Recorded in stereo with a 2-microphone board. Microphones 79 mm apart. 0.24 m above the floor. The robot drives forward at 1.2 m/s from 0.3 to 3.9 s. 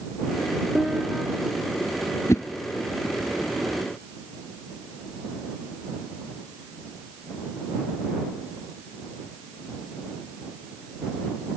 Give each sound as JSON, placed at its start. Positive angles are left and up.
{"t": 0.8, "sound": "a piano", "side_deg": -5}
{"t": 2.3, "sound": "a whoosh", "side_deg": 40}